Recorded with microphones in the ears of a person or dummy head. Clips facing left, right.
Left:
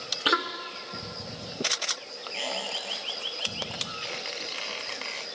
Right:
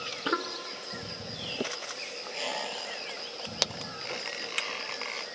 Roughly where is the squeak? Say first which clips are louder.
Left 1 dB; centre.